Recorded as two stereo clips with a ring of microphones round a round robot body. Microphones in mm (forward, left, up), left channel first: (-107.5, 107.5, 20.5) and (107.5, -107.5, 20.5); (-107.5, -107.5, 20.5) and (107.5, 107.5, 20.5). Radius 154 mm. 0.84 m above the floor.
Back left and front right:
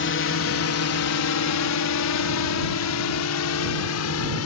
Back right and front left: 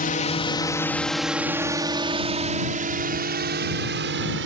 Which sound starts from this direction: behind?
A drone, at 0.0 s.